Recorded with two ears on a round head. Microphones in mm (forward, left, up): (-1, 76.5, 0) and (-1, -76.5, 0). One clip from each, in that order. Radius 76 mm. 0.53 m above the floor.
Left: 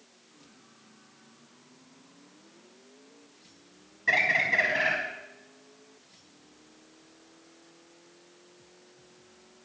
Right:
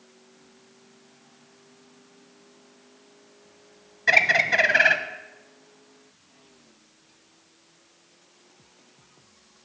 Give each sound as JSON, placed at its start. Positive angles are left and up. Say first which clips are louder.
{"t": 4.1, "sound": "a bird", "louder": "right 5 dB", "side_deg": -45, "distance_m": 0.6}